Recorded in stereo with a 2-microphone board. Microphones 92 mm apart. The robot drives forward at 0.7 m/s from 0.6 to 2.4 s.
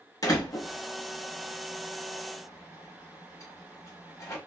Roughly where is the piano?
No piano in this recording.